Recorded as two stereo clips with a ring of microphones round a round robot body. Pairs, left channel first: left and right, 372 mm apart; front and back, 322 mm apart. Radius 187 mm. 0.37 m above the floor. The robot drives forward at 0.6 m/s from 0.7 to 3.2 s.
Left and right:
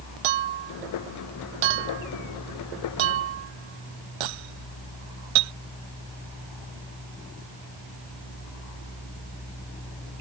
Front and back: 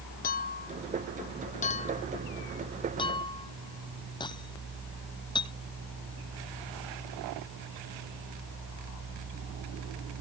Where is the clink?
70° right; by 5.5 s 80° right.